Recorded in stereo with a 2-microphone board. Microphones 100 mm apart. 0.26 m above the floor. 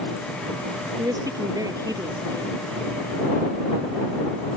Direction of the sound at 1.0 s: 35° right (ahead or behind).